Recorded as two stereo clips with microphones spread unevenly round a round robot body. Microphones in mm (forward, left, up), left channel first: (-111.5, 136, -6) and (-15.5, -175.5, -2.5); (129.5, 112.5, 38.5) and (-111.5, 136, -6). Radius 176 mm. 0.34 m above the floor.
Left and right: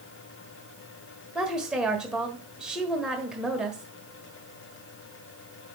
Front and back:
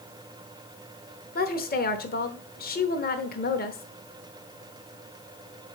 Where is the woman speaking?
15° left, 1.2 m.